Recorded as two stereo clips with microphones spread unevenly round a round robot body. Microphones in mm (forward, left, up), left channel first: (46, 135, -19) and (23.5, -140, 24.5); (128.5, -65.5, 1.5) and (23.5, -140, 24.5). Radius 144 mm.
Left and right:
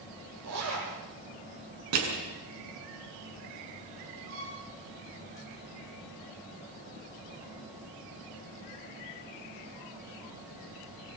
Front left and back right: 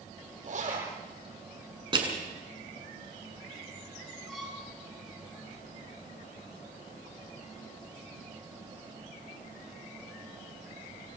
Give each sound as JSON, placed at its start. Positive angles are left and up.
{"t": 0.4, "sound": "a zipper", "azimuth_deg": -130, "distance_m": 9.0}
{"t": 1.9, "sound": "crushing", "azimuth_deg": -95, "distance_m": 7.0}
{"t": 4.3, "sound": "a violin", "azimuth_deg": -55, "distance_m": 6.5}